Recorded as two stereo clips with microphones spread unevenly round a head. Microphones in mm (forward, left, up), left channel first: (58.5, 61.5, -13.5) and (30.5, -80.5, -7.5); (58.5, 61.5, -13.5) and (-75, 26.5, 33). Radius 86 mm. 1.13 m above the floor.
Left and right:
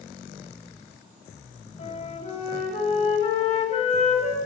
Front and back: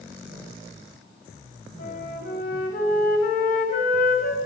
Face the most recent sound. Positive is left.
turn(degrees=35)